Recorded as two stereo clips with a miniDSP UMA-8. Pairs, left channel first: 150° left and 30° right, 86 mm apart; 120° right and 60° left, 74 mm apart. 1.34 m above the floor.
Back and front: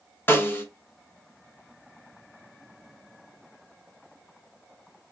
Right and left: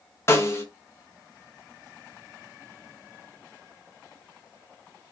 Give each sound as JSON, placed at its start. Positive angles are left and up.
{"t": 0.3, "sound": "a snare drum", "azimuth_deg": -155, "distance_m": 0.8}